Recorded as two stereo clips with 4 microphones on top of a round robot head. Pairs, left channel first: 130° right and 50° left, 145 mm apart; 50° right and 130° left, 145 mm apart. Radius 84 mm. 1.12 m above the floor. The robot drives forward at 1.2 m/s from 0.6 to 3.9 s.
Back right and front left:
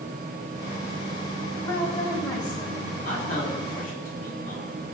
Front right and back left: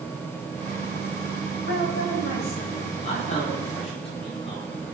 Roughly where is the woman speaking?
Ahead right.